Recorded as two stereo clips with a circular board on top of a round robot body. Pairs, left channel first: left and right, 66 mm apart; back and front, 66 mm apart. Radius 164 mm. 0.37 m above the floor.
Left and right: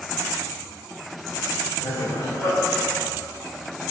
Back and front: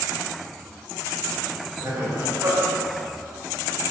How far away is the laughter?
About 3.5 m.